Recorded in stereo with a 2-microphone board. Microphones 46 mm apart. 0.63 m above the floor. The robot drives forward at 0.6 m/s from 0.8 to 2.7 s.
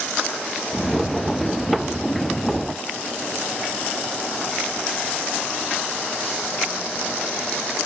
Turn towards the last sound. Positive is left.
No sound to turn to.